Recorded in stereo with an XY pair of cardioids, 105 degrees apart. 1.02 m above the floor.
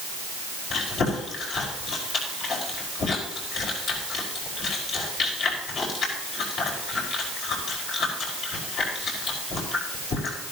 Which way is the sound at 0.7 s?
70° left.